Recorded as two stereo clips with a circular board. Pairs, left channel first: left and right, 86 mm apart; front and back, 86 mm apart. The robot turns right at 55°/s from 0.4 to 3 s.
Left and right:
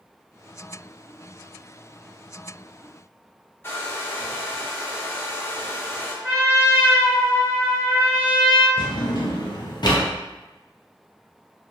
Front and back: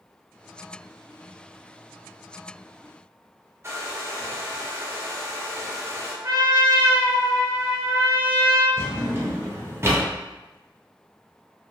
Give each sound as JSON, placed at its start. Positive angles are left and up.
{"t": 3.6, "sound": "a hair dryer", "azimuth_deg": 140, "distance_m": 0.5}
{"t": 6.2, "sound": "a trumpet", "azimuth_deg": -140, "distance_m": 1.1}
{"t": 8.8, "sound": "a drawer", "azimuth_deg": 120, "distance_m": 0.5}